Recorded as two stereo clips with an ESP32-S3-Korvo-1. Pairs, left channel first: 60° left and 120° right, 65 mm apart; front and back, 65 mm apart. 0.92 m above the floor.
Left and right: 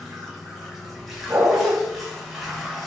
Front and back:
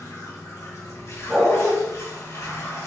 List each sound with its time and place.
0.0 s running water: 30° right, 1.2 m
1.3 s a dog barking: 85° right, 1.5 m